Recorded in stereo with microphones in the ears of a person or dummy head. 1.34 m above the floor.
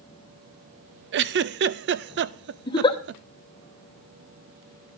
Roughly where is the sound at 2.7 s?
Left.